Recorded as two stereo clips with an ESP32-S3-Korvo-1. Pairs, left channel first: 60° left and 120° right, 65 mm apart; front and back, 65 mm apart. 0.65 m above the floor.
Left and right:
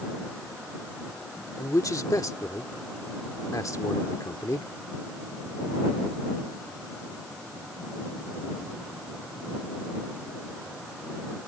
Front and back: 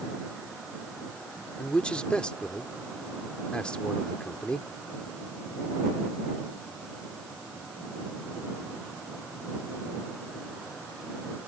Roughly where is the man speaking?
Left.